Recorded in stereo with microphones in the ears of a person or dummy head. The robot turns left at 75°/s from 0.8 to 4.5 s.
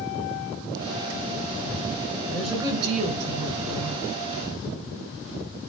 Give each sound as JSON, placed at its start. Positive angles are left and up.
{"t": 2.3, "sound": "a woman speaking", "azimuth_deg": 10, "distance_m": 5.5}